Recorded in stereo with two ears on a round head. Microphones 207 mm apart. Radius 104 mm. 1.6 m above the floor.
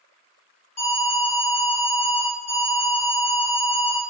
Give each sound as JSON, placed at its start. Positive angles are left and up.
{"t": 0.8, "sound": "an alarm", "side_deg": 30, "distance_m": 1.1}